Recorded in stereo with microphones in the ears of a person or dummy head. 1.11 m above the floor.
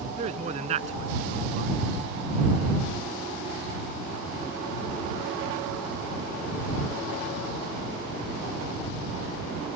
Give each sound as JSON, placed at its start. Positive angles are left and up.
{"t": 0.2, "sound": "a man speaking", "side_deg": -40}